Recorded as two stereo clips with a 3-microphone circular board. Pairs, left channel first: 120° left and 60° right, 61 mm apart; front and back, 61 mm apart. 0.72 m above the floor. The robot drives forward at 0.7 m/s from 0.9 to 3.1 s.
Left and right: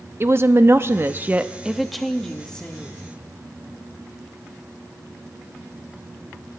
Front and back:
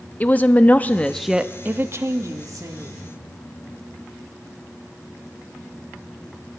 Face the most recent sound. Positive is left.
turn(degrees=-170)